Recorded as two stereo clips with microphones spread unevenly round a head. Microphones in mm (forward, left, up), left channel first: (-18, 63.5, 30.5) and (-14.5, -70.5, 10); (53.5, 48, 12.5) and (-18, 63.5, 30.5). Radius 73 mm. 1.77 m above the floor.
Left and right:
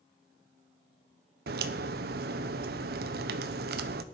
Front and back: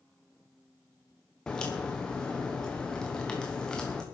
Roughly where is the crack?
Right.